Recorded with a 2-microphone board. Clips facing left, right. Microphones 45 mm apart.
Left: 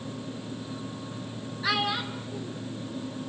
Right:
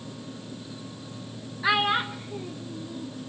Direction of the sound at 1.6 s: 15° right (ahead or behind).